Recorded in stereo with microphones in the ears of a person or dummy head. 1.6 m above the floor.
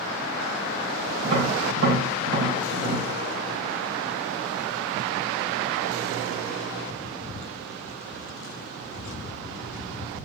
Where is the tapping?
50° right (ahead or behind), 1.5 m.